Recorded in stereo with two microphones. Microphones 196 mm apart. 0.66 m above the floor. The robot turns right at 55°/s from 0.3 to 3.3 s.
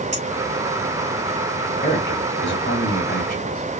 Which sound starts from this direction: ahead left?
A man speaking, at 1.8 s.